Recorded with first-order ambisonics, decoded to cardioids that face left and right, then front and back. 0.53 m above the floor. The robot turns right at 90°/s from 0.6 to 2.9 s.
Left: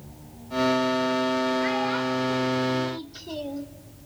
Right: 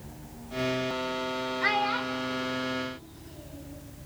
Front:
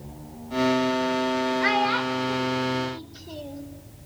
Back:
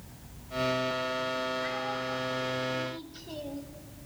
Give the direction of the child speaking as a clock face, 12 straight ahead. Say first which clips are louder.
Left 1 dB, front 10 dB; 1 o'clock.